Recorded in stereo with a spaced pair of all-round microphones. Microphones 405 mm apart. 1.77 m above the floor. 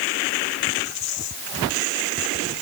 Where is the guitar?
No guitar in this recording.